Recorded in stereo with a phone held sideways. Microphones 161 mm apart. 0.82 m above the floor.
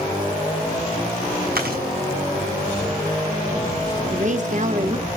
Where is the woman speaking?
50° right (ahead or behind), 1.3 m.